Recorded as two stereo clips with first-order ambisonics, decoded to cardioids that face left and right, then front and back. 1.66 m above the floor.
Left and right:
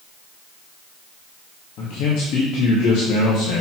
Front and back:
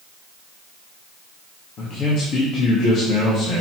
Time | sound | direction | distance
1.8 | a man speaking | 50° left | 2.5 m